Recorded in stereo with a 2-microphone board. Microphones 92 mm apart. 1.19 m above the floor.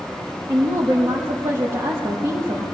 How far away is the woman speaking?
About 1.3 m.